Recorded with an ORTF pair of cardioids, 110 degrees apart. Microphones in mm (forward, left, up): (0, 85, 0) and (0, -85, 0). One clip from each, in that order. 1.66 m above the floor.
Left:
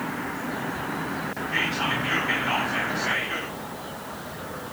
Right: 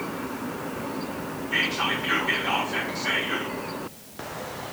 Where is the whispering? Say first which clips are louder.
Right 1 dB; 35° right, 4 m.